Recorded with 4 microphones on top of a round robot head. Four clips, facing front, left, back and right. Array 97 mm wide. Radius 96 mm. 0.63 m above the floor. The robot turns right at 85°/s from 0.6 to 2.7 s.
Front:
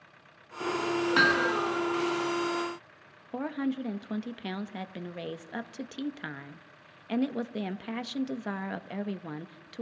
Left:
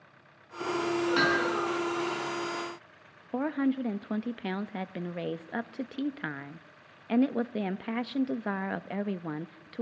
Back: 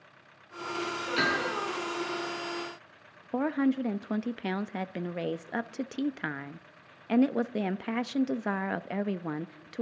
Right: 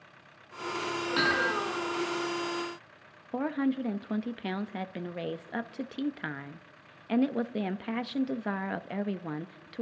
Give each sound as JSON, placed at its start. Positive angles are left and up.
{"t": 1.2, "sound": "hammering", "azimuth_deg": 10, "distance_m": 7.0}
{"t": 3.3, "sound": "a woman speaking", "azimuth_deg": 160, "distance_m": 0.8}